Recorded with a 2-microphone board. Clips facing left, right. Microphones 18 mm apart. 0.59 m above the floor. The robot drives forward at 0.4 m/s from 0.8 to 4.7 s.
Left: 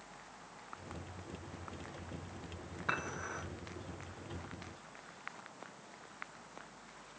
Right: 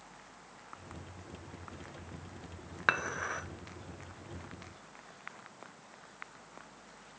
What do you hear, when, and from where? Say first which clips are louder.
2.9 s dishes clattering: right 7 dB; 60° right (ahead or behind), 1.4 m; by 3.4 s 55° right (ahead or behind), 1.5 m